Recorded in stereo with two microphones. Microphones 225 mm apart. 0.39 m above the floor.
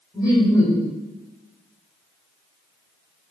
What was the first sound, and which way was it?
Laughter, 15° left (ahead or behind).